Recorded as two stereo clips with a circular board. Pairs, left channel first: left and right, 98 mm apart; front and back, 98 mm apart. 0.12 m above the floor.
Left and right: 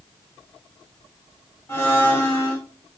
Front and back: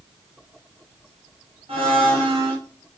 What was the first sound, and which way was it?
A blender, 155° left.